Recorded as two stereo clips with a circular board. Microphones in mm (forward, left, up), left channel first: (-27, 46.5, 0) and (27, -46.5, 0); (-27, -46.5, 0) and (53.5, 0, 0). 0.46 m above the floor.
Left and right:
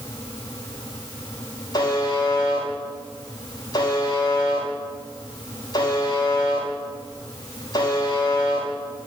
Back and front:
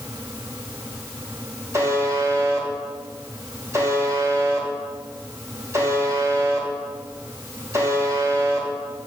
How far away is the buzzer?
About 2 m.